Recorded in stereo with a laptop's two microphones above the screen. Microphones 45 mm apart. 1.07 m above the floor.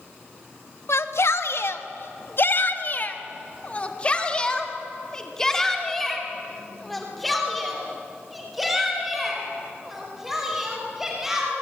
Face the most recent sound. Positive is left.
turn(degrees=-10)  # may be behind; listen again after turning